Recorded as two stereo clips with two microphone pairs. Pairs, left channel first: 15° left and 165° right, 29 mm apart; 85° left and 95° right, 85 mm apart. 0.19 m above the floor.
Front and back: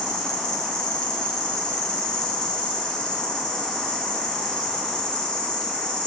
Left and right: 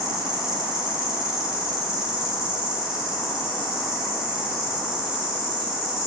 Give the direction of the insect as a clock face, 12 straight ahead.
1 o'clock.